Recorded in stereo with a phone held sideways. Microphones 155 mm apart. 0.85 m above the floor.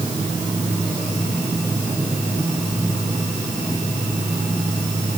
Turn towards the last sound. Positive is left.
No sound to turn to.